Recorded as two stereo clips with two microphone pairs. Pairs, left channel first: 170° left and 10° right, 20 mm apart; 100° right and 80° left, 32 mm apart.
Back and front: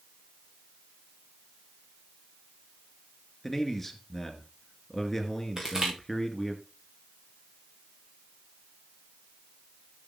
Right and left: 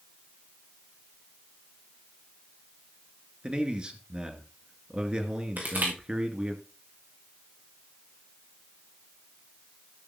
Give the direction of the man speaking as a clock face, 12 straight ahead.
9 o'clock.